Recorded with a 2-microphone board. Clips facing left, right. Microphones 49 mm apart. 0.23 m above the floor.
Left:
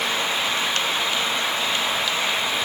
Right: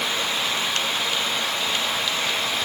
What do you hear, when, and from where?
Only background noise.